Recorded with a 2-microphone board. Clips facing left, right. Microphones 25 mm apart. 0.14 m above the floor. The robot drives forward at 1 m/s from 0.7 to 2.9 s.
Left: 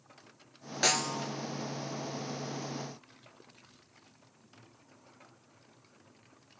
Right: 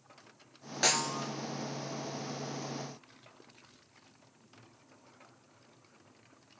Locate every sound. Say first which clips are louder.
0.8 s a snare drum: left 1 dB; 5° left (ahead or behind), 0.8 m